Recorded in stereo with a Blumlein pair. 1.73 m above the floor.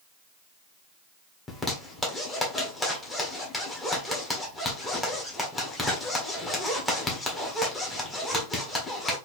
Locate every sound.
1.5 s a zipper: 10° left, 1.5 m